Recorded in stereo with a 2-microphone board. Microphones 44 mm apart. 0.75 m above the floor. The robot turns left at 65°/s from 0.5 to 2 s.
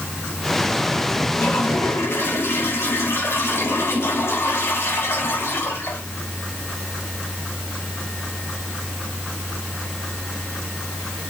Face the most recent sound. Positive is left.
turn(degrees=85)